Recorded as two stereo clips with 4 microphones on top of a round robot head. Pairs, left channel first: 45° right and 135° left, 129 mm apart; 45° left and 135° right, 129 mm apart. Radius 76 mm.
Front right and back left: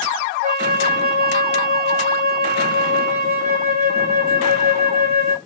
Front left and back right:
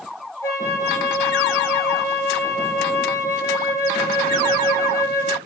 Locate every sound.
0.4 s a flute: 110° left, 1.0 m